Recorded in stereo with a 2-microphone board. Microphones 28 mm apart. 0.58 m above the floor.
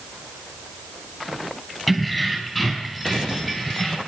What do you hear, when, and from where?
1.9 s keys jangling: 5° left (ahead or behind), 3 m; by 4.0 s 30° left (ahead or behind), 3 m